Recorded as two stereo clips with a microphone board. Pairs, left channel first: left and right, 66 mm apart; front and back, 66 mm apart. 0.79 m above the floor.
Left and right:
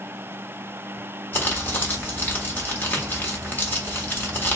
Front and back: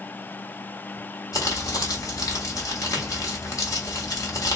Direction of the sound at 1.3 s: 30° left.